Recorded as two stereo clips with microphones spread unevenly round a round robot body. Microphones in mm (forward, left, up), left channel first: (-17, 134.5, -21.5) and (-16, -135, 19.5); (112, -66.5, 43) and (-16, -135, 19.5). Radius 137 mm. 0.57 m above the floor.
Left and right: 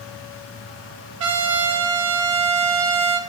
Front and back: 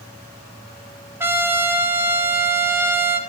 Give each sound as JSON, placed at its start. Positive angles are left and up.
{"t": 1.2, "sound": "a trumpet", "azimuth_deg": -75, "distance_m": 0.6}